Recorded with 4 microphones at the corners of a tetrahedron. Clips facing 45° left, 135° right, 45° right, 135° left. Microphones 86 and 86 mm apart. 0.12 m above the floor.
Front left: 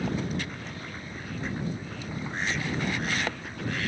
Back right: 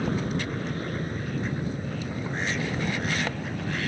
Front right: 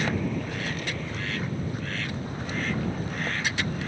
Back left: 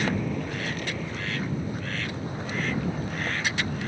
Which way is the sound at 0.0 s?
140° right.